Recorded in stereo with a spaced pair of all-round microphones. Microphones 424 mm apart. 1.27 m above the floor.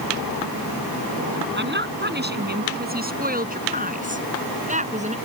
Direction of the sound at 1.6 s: 25° right (ahead or behind).